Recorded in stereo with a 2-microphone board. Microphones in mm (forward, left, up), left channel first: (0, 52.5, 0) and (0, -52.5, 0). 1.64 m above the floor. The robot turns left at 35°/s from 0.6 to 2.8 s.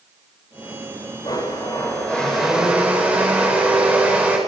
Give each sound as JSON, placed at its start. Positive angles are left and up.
{"t": 1.2, "sound": "a blender", "azimuth_deg": 40, "distance_m": 8.0}